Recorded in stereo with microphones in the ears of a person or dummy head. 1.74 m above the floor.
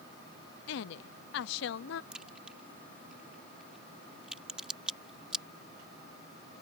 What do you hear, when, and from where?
0.7 s a woman speaking: 75° left (ahead or behind)
2.1 s a crack: 5° right (ahead or behind)